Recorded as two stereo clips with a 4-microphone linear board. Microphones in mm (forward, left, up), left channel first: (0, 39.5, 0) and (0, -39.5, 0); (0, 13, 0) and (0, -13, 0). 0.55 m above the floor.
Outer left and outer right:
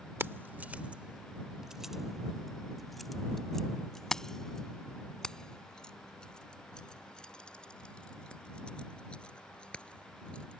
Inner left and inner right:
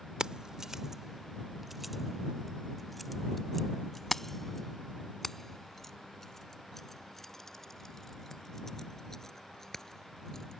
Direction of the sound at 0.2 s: 30° right (ahead or behind).